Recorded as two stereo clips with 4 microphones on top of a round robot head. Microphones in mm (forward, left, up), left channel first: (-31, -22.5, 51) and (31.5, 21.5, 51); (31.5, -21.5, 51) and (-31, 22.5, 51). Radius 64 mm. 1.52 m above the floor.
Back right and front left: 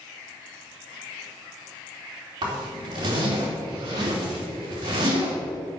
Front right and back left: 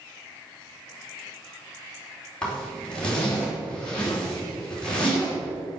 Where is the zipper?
45° left, 4 m.